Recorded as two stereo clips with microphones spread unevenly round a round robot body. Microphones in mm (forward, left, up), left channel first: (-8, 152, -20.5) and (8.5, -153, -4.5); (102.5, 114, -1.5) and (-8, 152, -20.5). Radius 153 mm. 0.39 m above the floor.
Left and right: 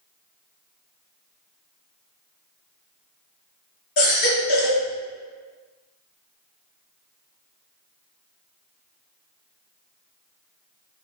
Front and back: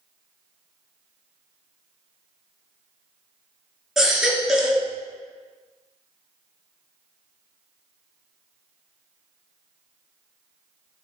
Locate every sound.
4.0 s a baby crying: 70° left, 2.5 m